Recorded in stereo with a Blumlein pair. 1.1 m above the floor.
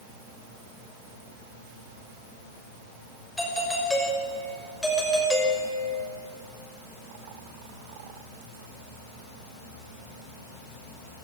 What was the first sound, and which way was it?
A doorbell, 5° left.